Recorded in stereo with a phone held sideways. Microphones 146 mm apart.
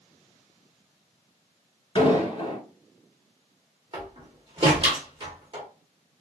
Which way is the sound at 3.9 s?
40° right (ahead or behind).